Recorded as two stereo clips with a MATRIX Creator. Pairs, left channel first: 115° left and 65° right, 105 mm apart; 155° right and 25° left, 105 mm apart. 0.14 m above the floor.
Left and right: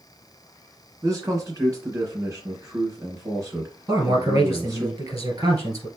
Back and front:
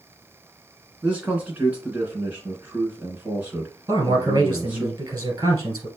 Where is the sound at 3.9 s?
20° right, 2 m.